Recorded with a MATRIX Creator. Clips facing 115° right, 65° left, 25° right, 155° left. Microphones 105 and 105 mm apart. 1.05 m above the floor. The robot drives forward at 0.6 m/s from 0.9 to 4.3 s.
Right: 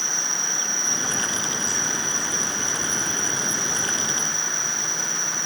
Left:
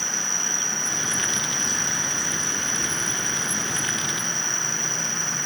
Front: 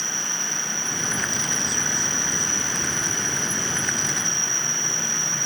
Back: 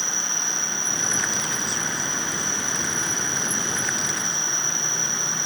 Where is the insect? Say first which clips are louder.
Even, even; 105° right, 2 m; by 5.5 s 140° right, 3.5 m.